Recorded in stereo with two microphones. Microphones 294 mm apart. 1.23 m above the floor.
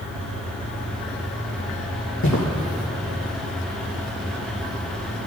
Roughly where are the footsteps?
Left.